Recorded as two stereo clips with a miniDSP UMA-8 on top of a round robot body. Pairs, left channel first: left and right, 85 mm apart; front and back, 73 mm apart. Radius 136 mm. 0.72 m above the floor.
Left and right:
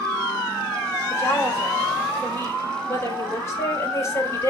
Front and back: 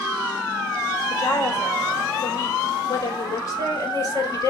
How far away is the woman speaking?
About 4 m.